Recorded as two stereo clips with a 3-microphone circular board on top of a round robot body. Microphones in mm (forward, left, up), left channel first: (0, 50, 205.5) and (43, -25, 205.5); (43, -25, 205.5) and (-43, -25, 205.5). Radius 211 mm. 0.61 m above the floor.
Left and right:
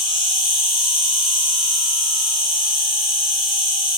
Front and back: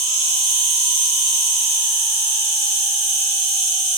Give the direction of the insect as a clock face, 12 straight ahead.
9 o'clock.